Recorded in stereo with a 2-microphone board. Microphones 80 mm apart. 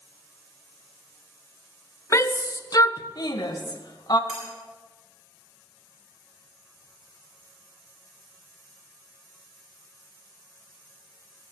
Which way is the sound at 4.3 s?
5° right (ahead or behind).